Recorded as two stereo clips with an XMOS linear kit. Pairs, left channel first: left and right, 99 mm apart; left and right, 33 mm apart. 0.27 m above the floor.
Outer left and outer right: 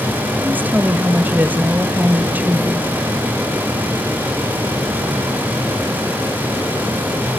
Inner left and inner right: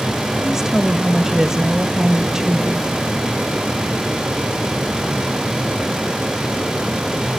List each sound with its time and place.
0.4 s a woman speaking: 15° right (ahead or behind), 1.5 m